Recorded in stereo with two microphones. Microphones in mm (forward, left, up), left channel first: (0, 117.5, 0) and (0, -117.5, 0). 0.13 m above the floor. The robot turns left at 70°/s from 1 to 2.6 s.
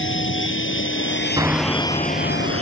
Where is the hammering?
160° right; by 2.6 s 110° left.